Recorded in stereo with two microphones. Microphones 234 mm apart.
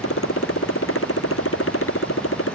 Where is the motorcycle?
65° left (ahead or behind).